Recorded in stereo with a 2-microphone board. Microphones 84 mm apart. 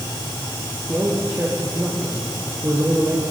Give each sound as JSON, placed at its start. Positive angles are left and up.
{"t": 0.9, "sound": "a man speaking", "side_deg": -30, "distance_m": 5.0}